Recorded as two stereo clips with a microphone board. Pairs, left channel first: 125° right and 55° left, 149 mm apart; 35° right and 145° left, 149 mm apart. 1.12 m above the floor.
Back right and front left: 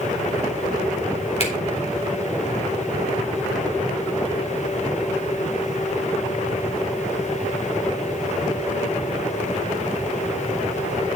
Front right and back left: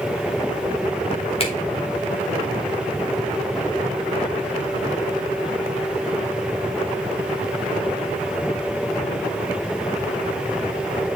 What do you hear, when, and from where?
1.4 s a finger snap: 80° right, 2.5 m